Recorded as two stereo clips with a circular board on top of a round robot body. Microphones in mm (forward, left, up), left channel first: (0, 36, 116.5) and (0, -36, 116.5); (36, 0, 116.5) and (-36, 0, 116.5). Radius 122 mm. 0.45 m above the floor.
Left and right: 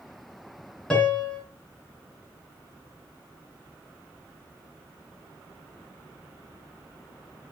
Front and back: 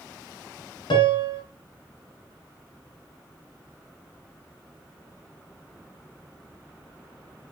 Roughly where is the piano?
Ahead.